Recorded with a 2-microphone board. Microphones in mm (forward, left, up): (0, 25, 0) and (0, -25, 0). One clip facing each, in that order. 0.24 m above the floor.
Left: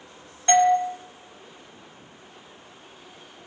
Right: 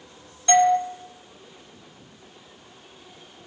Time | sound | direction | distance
0.5 | a doorbell | 30° left (ahead or behind) | 1.5 m